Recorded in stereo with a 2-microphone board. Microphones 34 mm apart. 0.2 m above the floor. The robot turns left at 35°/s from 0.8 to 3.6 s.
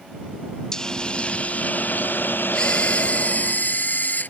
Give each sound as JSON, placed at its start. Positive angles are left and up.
{"t": 0.7, "sound": "a hiss", "azimuth_deg": 165}
{"t": 2.5, "sound": "a camera shutter", "azimuth_deg": 155}